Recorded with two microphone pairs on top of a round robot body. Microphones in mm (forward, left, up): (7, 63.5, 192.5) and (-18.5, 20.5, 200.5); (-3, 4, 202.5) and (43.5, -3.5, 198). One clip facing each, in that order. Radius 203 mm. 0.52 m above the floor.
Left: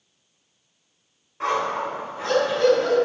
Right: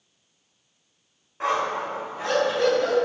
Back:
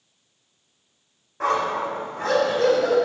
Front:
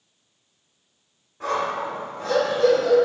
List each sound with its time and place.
1.4 s a dog barking: 160° left, 2.5 m